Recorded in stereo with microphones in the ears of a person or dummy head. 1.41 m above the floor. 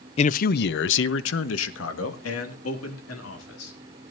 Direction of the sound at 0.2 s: 35° left (ahead or behind).